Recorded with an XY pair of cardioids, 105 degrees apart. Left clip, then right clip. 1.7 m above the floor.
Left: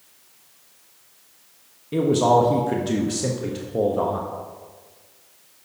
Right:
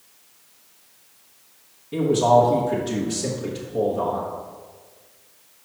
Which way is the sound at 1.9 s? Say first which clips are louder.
Right 1 dB; 35° left.